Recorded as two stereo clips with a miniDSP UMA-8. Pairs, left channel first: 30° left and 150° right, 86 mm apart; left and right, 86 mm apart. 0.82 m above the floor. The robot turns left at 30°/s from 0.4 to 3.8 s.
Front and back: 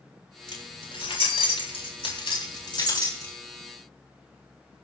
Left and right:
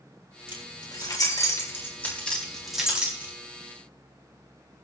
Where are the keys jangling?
65° left, 4 m; by 3.3 s 20° right, 4 m.